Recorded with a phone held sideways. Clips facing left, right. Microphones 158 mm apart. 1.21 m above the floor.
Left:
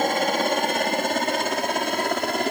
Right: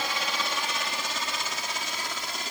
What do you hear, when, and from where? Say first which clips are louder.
0.0 s a helicopter: left 11 dB; 50° left (ahead or behind); by 2.5 s 55° left (ahead or behind)